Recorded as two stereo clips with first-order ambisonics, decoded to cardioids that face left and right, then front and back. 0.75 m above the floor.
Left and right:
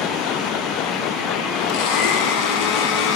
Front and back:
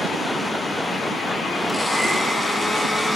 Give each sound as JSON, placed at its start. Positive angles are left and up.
{"t": 1.7, "sound": "a blender", "azimuth_deg": 85, "distance_m": 2.0}